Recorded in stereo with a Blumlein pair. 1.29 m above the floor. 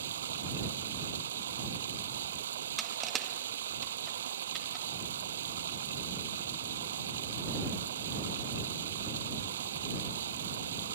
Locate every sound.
0.0 s running water: 60° right
2.8 s crushing: 20° right